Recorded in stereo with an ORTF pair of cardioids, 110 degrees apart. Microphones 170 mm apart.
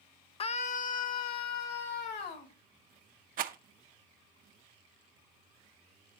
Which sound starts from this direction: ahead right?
A rattle, at 3.4 s.